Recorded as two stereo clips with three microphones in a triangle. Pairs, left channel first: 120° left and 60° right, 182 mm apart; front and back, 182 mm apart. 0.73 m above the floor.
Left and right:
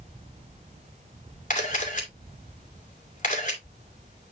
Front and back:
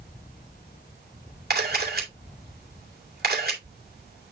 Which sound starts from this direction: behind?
A camera shutter, at 1.5 s.